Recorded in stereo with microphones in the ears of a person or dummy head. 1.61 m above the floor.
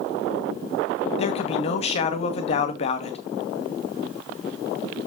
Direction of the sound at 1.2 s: 40° left (ahead or behind).